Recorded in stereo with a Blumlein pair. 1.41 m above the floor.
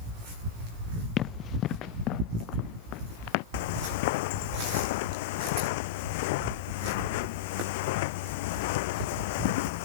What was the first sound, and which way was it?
Running footsteps, 30° left.